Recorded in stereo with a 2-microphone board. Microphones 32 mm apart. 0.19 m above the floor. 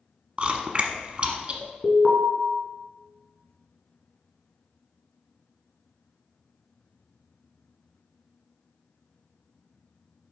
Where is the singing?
I don't hear singing.